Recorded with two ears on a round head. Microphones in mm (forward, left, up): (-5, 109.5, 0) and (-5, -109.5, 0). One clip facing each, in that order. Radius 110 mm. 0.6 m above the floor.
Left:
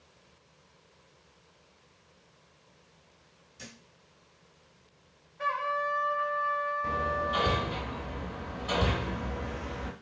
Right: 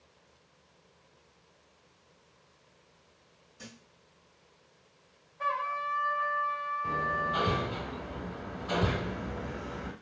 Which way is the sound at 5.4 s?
60° left (ahead or behind).